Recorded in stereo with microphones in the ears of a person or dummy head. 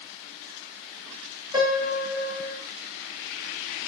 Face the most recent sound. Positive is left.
turn(degrees=-15)  # may be behind; listen again after turning